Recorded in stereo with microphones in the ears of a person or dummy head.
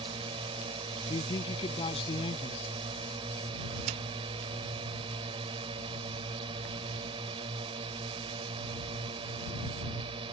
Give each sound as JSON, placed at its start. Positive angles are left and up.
{"t": 0.0, "sound": "a drone", "side_deg": -30}
{"t": 1.1, "sound": "a man speaking", "side_deg": 30}
{"t": 3.9, "sound": "a snare drum", "side_deg": -35}